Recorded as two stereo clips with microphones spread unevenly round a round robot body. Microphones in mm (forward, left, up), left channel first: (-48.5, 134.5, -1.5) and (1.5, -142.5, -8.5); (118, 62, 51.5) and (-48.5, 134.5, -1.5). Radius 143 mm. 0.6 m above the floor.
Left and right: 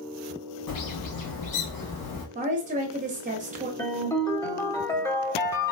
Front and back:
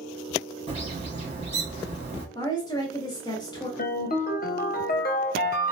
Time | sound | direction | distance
0.7 | a bird | 115° left | 2.5 m
2.4 | a woman speaking | 100° right | 1.0 m
3.8 | a ringtone | 20° left | 1.1 m